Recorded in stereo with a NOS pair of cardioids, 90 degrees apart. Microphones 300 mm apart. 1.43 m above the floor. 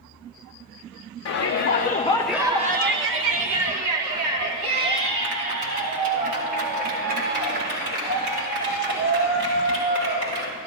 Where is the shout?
60° left, 1.2 m; by 10.5 s 80° right, 8 m.